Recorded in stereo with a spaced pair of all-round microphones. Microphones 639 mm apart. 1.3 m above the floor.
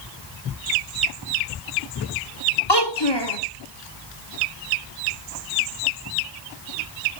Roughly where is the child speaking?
Left.